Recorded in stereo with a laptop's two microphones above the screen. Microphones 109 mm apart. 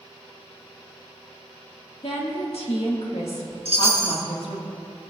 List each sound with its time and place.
2.0 s a woman speaking: 65° left (ahead or behind), 1.7 m
3.6 s a chime: 60° right (ahead or behind), 1.3 m